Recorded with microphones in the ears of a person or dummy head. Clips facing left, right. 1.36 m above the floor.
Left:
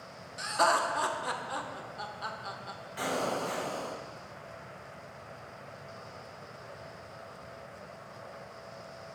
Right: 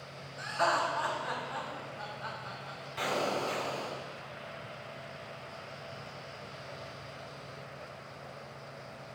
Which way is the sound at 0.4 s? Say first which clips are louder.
Left 2 dB; 60° left (ahead or behind).